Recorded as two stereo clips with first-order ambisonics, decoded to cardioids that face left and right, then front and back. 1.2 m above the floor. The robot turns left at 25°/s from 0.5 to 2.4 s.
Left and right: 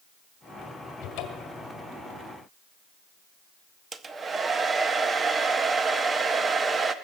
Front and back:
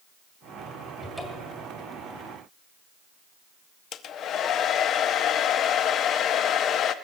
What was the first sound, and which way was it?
A cupboard door, 85° left.